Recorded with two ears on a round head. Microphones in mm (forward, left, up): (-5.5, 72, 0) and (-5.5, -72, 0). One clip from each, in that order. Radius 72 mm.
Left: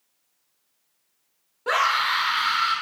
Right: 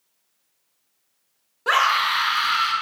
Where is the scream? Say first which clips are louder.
Right 3 dB; 30° right (ahead or behind), 1.0 m.